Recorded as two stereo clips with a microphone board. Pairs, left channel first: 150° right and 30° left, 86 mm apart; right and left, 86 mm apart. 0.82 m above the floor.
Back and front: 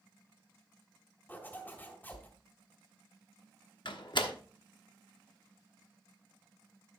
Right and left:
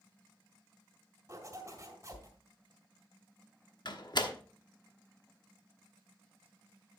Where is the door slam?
125° right, 1.1 m.